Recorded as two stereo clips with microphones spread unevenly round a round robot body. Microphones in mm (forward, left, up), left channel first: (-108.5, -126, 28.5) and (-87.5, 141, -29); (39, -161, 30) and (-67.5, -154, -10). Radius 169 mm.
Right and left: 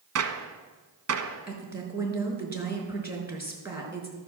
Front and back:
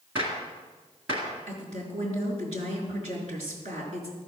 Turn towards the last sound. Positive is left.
turn(degrees=165)